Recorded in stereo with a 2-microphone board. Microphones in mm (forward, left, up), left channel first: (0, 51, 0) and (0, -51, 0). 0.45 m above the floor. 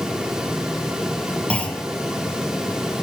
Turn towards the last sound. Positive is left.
turn(degrees=10)  # may be behind; listen again after turning